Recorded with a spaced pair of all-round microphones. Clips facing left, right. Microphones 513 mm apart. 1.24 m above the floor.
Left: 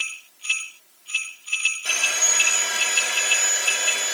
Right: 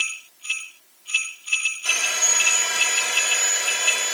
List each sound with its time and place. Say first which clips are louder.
1.9 s sawing: even; 25° right (ahead or behind), 1.6 m